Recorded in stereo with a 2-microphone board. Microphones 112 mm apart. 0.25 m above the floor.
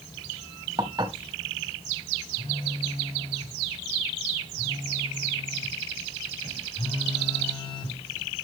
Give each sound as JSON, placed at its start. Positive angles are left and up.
{"t": 0.8, "sound": "dishes clattering", "side_deg": -40, "distance_m": 0.9}
{"t": 2.4, "sound": "a phone buzzing", "side_deg": 45, "distance_m": 2.0}